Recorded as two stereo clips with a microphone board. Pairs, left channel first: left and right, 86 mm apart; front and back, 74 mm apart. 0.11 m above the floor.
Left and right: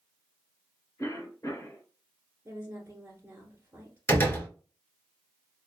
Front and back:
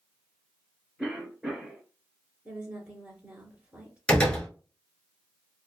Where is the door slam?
60° left, 1.2 m.